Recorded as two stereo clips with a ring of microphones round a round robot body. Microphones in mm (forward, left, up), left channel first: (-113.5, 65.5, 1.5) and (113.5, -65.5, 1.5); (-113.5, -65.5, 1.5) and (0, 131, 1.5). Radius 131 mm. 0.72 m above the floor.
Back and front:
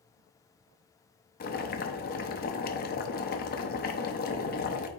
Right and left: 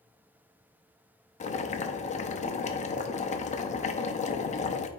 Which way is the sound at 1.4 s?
170° right.